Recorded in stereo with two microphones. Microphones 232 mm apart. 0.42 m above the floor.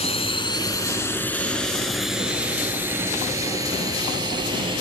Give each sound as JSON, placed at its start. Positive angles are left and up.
{"t": 0.0, "sound": "a drone", "side_deg": 25}